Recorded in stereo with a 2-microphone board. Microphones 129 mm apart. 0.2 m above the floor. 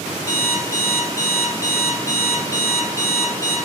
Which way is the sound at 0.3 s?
25° left (ahead or behind).